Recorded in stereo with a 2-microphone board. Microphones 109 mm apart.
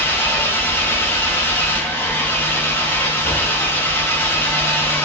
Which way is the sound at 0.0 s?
20° left (ahead or behind).